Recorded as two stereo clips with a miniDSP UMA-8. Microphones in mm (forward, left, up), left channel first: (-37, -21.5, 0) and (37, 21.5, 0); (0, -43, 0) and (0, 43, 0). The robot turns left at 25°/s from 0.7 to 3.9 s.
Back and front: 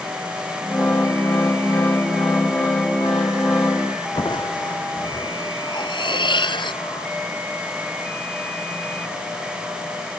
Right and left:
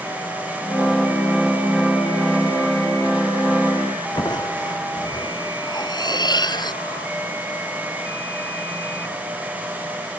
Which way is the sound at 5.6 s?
125° right.